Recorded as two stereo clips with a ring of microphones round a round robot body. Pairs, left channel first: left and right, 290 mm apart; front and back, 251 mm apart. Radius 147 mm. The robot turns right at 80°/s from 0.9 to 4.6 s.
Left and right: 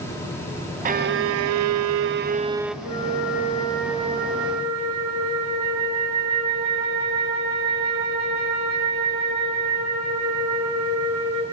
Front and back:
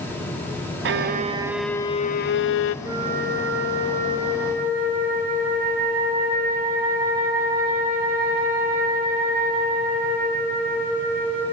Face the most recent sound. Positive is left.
turn(degrees=-115)